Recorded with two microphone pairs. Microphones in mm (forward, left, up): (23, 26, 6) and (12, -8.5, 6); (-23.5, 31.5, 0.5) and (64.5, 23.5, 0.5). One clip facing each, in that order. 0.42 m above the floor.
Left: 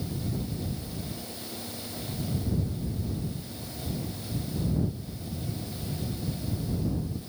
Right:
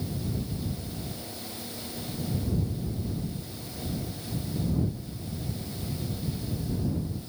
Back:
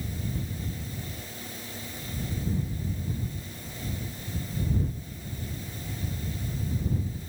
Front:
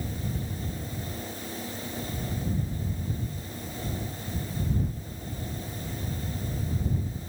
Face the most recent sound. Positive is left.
No sound to turn to.